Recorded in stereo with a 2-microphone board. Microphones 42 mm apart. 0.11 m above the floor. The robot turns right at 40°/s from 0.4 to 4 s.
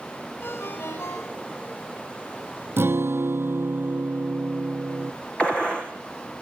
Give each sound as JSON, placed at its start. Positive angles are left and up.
{"t": 0.4, "sound": "a ringtone", "azimuth_deg": 50, "distance_m": 9.0}
{"t": 2.8, "sound": "a guitar", "azimuth_deg": -110, "distance_m": 0.5}
{"t": 5.4, "sound": "a gunshot", "side_deg": 25, "distance_m": 3.5}